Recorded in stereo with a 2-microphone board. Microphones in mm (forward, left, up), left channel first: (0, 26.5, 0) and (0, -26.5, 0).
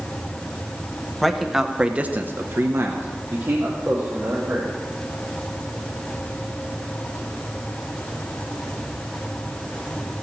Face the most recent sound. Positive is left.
turn(degrees=-40)  # may be behind; listen again after turning